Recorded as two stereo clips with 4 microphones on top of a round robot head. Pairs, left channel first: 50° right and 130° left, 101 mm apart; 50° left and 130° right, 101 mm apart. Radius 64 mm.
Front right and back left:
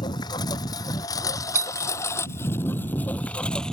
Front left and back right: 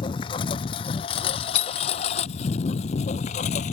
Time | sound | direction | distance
0.0 | a lawn mower | 5° left | ?
1.6 | a doorbell | 65° left | ?